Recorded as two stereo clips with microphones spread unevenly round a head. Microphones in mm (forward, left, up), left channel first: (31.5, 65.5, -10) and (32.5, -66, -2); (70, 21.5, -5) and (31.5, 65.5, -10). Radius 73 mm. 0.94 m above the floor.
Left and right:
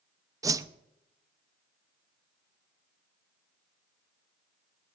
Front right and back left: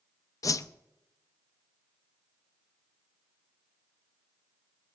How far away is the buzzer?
No buzzer in this recording.